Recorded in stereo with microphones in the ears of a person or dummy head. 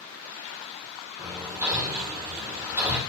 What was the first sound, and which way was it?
Hammering, 10° right (ahead or behind).